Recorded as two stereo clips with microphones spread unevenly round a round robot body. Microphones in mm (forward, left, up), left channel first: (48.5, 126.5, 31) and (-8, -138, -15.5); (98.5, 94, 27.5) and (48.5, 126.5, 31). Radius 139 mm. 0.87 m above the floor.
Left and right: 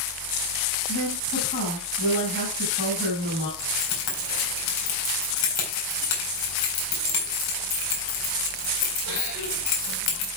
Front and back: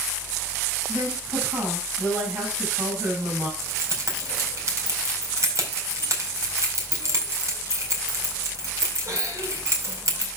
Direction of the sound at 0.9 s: 140° left.